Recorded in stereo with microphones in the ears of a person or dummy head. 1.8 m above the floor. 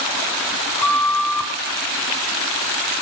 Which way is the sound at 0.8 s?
5° left (ahead or behind).